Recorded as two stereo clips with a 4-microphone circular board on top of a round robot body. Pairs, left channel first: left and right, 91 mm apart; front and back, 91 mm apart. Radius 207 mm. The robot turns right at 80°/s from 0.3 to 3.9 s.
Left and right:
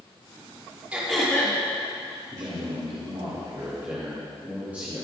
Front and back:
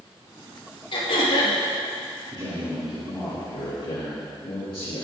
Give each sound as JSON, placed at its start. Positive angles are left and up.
{"t": 0.9, "sound": "throat clearing", "azimuth_deg": -15, "distance_m": 3.0}
{"t": 2.3, "sound": "a man speaking", "azimuth_deg": -145, "distance_m": 3.0}